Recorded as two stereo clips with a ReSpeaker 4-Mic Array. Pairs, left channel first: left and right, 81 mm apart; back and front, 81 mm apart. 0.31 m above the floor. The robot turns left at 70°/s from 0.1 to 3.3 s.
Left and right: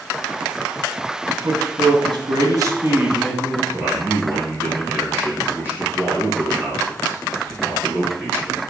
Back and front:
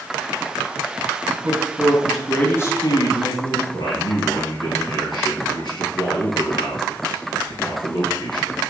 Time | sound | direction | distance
1.3 | a man speaking | 35° right | 2 m
3.7 | a man speaking | 155° right | 4 m